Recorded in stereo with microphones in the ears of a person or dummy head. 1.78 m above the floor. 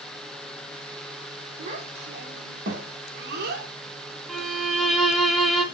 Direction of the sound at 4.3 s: Centre (ahead or behind).